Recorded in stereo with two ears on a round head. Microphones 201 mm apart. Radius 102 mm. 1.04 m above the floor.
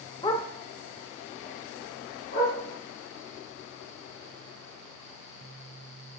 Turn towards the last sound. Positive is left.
turn(degrees=50)  # may be behind; listen again after turning